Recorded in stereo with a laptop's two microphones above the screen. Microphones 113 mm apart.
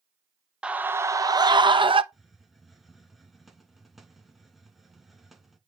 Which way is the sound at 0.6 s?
10° right (ahead or behind).